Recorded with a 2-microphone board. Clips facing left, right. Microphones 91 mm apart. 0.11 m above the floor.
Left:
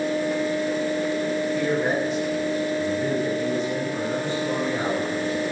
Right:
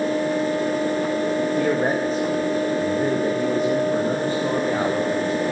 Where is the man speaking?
40° right (ahead or behind), 7.5 m; by 5.5 s 55° right (ahead or behind), 11.5 m.